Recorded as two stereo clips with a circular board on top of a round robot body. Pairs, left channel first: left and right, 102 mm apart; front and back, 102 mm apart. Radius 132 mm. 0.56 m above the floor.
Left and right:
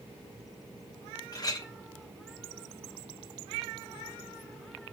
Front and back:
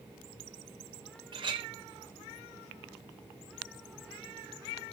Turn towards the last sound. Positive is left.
turn(degrees=140)